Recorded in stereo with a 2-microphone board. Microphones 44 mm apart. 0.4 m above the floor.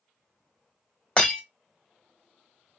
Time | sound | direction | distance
1.2 | breaking glass | 25° left (ahead or behind) | 1.1 m